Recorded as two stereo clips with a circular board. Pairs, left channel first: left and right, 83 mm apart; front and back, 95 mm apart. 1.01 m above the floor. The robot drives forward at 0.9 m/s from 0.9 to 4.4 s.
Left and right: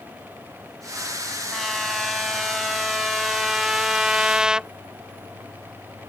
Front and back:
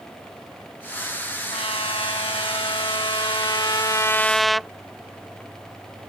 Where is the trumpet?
Straight ahead; by 4.7 s 85° right.